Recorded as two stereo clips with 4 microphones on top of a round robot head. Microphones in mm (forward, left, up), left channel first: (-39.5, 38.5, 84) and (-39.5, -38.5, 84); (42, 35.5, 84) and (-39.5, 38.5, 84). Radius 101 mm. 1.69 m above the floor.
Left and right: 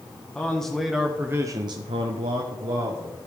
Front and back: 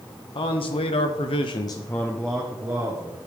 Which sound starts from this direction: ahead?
A man speaking, at 0.3 s.